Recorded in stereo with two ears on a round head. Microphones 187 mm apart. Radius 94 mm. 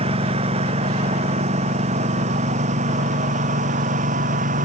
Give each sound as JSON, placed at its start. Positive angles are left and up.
{"t": 0.0, "sound": "a lawn mower", "side_deg": -30}